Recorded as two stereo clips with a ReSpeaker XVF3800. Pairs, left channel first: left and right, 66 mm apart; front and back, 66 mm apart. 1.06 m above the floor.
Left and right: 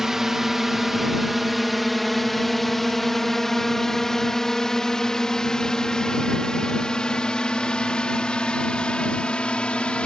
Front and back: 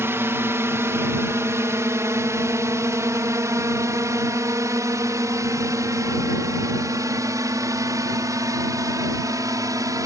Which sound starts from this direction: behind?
A drone, at 0.0 s.